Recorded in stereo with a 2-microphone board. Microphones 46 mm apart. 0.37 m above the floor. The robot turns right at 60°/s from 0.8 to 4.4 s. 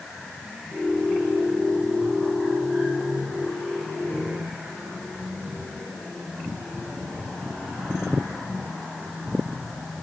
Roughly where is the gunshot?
No gunshot in this recording.